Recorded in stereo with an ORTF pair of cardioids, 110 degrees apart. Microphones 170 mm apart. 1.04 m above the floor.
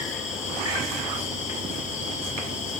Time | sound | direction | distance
0.0 | an insect | 45° left | 1.8 m